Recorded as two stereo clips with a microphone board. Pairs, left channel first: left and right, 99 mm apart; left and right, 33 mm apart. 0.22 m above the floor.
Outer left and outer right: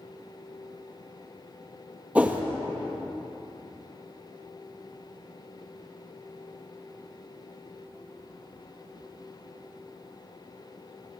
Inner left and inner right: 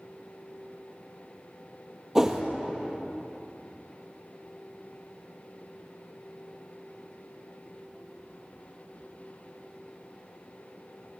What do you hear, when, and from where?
2.1 s a whoosh: 15° right (ahead or behind), 1.3 m